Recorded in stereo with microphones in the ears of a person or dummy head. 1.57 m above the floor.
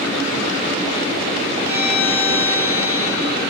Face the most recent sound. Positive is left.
turn(degrees=-15)  # may be behind; listen again after turning